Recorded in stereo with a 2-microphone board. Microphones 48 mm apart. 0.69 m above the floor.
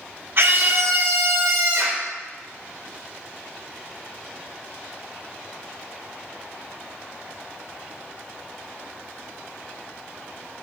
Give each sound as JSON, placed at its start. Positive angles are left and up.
{"t": 0.4, "sound": "a scream", "side_deg": -50, "distance_m": 1.5}